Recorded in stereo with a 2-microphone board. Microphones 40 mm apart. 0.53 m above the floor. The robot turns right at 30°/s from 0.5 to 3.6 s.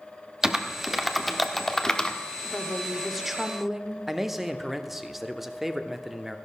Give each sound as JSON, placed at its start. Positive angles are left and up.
{"t": 0.4, "sound": "typing on a keyboard", "side_deg": -15, "distance_m": 1.0}
{"t": 2.5, "sound": "a woman speaking", "azimuth_deg": 160, "distance_m": 1.1}
{"t": 4.1, "sound": "a man speaking", "side_deg": -5, "distance_m": 0.9}